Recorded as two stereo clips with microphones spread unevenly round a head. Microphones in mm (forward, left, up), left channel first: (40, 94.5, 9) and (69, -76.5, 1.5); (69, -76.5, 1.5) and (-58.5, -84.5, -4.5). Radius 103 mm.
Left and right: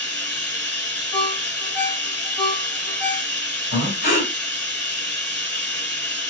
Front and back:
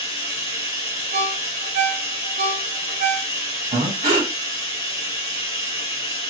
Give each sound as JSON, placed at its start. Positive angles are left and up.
{"t": 0.0, "sound": "running water", "azimuth_deg": 25, "distance_m": 1.5}
{"t": 1.1, "sound": "a ringtone", "azimuth_deg": 180, "distance_m": 0.7}
{"t": 3.7, "sound": "breathing", "azimuth_deg": 135, "distance_m": 1.5}